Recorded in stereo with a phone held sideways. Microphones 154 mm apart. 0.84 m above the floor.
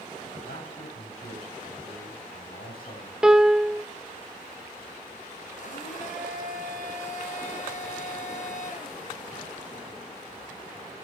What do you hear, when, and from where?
0.4 s a man speaking: 80° left, 8.5 m
3.2 s a piano: 5° right (ahead or behind), 0.7 m
5.6 s a blender: 55° left (ahead or behind), 6.5 m